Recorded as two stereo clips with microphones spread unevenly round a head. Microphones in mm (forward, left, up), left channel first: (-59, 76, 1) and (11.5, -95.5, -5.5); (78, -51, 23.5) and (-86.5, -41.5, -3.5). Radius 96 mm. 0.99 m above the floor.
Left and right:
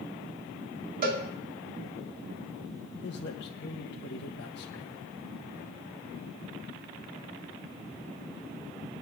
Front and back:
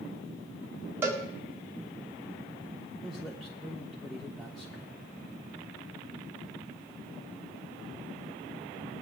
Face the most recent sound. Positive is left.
turn(degrees=95)